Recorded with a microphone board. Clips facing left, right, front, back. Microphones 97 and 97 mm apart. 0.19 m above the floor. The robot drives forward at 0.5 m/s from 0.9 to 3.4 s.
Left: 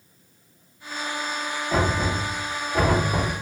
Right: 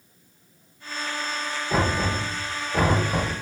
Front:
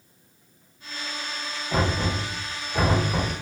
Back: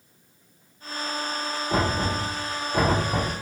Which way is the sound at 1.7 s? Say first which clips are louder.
Even, even; 140° right.